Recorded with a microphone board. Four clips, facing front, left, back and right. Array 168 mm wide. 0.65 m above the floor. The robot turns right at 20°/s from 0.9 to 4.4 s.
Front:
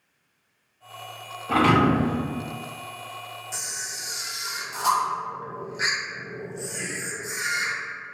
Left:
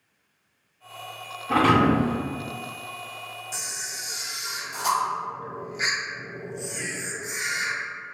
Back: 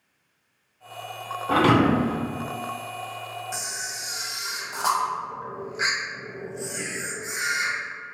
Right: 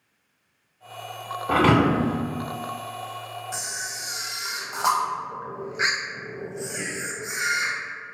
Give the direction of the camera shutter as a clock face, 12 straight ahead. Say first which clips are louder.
Right 3 dB, back 3 dB; 4 o'clock.